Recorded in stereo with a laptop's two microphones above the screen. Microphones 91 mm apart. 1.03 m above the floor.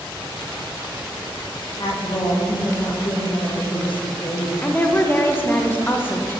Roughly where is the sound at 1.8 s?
Left.